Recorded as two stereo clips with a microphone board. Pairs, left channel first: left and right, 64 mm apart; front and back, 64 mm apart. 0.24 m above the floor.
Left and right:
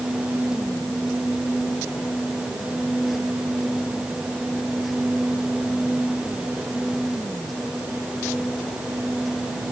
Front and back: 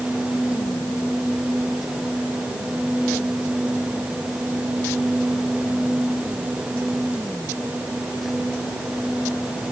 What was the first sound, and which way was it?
Only background noise.